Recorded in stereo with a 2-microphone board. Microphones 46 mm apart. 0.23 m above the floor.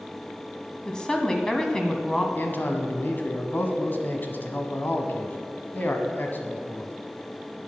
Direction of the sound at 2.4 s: 45° left (ahead or behind).